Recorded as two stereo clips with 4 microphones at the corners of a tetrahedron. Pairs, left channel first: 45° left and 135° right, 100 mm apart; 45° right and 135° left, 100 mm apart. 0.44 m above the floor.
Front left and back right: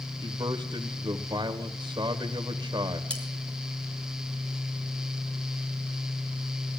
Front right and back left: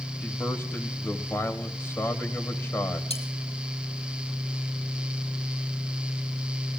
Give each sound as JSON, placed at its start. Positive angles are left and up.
{"t": 0.2, "sound": "a man speaking", "azimuth_deg": -105, "distance_m": 1.5}
{"t": 3.1, "sound": "cutlery clinking", "azimuth_deg": -35, "distance_m": 4.0}